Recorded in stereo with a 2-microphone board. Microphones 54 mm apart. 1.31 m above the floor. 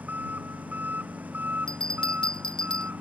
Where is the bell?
15° left (ahead or behind).